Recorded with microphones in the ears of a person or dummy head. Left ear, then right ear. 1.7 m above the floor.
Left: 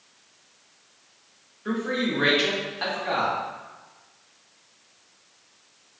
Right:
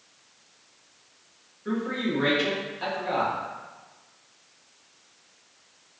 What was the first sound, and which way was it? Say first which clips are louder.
A man speaking: left 3 dB; 25° left (ahead or behind).